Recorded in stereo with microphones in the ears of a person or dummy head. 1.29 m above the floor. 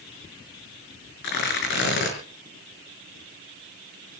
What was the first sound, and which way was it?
Tearing paper, 60° left (ahead or behind).